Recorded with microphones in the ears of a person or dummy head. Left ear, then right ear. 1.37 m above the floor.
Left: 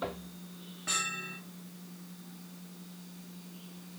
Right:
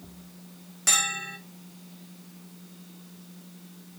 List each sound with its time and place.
0.9 s a bell: 70° right (ahead or behind), 2 m